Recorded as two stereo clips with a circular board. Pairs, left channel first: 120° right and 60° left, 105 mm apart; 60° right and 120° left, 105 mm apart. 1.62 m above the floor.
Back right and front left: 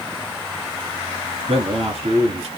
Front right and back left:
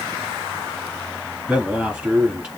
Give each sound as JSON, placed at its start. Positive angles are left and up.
{"t": 1.5, "sound": "a man speaking", "azimuth_deg": 40, "distance_m": 3.0}